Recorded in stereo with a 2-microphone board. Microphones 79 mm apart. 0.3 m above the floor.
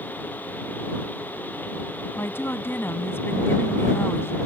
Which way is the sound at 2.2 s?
30° left (ahead or behind).